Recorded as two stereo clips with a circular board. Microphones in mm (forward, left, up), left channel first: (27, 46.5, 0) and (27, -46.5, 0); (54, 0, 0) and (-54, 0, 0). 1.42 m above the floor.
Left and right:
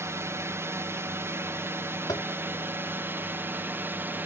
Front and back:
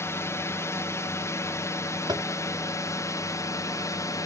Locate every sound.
0.0 s a drone: 50° right; by 4.3 s 35° right
2.1 s tapping: 130° left